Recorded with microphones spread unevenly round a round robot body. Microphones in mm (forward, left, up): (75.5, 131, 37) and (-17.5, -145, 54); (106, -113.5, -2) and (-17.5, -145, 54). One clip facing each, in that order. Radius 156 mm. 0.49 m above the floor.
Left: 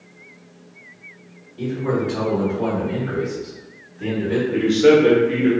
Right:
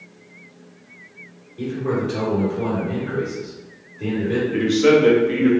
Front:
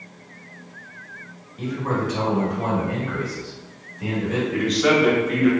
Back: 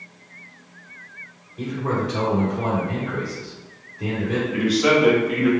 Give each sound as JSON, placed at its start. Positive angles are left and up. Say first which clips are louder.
{"t": 1.6, "sound": "a man speaking", "louder": "left 1 dB, even", "azimuth_deg": 150, "distance_m": 1.9}
{"t": 4.5, "sound": "a man speaking", "louder": "left 2 dB, back 1 dB", "azimuth_deg": -30, "distance_m": 0.7}